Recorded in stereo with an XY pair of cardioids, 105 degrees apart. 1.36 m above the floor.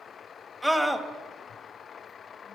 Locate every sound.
0.6 s a scream: 5° right, 1.8 m